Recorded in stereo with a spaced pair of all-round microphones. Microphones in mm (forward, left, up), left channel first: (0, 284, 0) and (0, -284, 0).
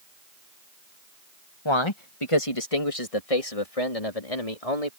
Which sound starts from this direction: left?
A man speaking, at 1.6 s.